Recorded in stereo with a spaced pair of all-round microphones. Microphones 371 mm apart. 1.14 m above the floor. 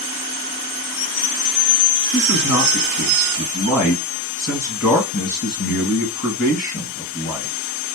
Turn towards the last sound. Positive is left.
turn(degrees=35)  # may be behind; listen again after turning